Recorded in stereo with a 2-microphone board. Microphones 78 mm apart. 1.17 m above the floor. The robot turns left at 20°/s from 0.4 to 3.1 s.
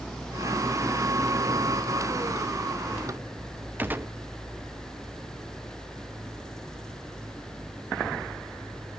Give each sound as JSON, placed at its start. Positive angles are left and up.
{"t": 3.8, "sound": "a gunshot", "side_deg": -25, "distance_m": 0.6}